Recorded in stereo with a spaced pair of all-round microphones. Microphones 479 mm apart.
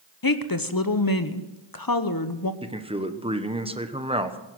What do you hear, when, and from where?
0.2 s a woman speaking: 45° left (ahead or behind), 1.0 m
2.6 s a man speaking: 10° right (ahead or behind), 1.1 m